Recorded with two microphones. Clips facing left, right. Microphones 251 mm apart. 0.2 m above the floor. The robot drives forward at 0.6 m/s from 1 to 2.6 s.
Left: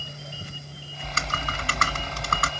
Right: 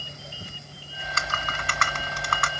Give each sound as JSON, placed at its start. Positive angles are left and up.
{"t": 1.0, "sound": "typing on a keyboard", "side_deg": 35, "distance_m": 1.1}